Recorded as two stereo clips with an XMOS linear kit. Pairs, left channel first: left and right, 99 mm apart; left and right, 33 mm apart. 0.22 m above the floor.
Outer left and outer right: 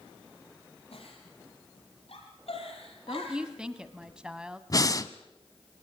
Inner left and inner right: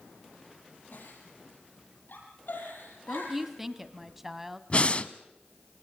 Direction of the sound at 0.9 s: 75° left (ahead or behind).